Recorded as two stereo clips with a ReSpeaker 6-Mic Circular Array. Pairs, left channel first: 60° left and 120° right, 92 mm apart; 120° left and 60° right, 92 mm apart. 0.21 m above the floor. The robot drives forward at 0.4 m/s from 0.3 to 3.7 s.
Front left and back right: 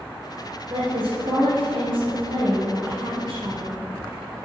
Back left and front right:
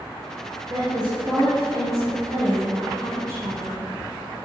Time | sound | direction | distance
0.7 | a woman speaking | 95° right | 3 m